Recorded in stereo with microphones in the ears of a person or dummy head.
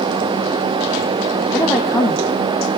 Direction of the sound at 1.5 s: 15° left (ahead or behind).